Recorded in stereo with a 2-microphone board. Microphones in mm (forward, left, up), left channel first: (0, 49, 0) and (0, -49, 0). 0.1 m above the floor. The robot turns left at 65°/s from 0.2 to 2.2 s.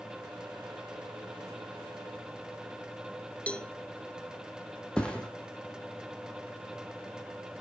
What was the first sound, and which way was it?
A cowbell, 15° left (ahead or behind).